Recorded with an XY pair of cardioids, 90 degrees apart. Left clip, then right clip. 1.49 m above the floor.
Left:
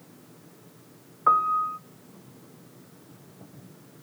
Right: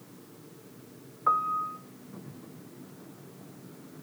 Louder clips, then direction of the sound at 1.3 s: Left 5 dB; 40° left.